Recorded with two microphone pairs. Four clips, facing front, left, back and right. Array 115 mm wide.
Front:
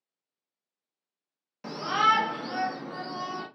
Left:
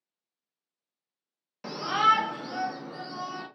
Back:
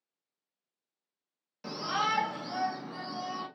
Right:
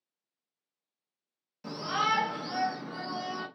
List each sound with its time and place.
1.6 s a shout: 75° left, 0.7 m; by 3.5 s 40° right, 1.3 m